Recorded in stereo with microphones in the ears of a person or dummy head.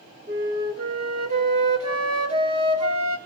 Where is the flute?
40° right (ahead or behind), 2.0 m.